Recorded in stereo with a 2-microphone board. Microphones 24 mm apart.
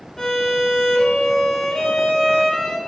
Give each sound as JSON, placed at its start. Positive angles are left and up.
{"t": 0.2, "sound": "a violin", "side_deg": 20, "distance_m": 1.9}